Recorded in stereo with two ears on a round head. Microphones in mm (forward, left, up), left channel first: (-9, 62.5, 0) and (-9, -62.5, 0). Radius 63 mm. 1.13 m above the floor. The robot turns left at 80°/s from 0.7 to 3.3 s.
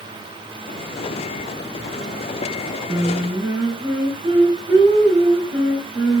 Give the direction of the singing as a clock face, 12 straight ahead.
11 o'clock.